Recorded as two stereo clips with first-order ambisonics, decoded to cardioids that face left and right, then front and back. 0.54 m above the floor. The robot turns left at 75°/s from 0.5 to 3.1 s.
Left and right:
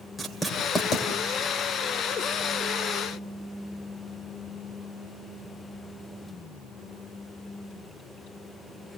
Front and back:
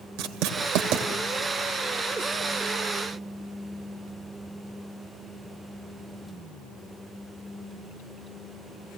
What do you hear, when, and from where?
0.2 s writing: straight behind, 2.5 m; by 1.1 s 135° left, 2.5 m